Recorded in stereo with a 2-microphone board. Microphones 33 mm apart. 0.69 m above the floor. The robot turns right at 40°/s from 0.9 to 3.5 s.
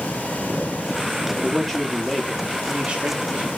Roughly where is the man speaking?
Behind.